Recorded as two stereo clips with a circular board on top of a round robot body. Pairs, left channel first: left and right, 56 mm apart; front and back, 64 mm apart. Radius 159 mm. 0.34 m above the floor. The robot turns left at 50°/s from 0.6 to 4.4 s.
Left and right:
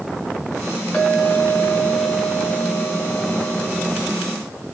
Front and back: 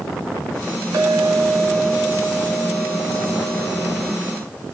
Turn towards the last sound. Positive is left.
turn(degrees=-30)